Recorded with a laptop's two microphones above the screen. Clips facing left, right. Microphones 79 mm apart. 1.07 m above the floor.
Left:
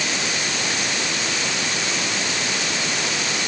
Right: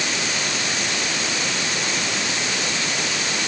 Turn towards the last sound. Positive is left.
No sound to turn to.